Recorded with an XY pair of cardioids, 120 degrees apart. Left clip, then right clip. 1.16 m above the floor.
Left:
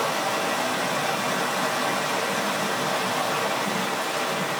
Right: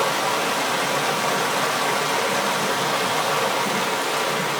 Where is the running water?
35° right, 0.8 m.